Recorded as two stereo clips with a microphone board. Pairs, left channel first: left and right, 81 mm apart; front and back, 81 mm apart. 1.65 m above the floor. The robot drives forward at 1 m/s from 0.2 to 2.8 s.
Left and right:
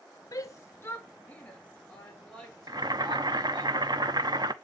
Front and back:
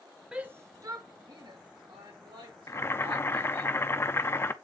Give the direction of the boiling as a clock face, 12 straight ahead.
2 o'clock.